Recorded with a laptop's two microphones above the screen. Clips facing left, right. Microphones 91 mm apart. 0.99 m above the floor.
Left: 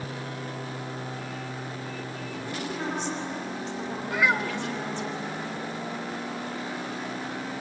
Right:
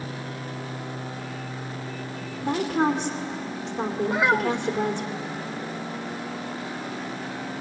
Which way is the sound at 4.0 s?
25° right (ahead or behind).